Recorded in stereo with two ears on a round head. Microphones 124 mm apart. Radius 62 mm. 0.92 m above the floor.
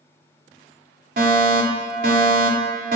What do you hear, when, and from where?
1.2 s a fire alarm: 65° right (ahead or behind), 4 m